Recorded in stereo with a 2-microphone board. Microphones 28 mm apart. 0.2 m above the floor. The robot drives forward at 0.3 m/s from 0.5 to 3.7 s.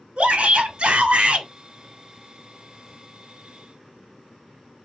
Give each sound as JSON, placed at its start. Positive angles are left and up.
{"t": 0.2, "sound": "a shout", "side_deg": -45, "distance_m": 1.3}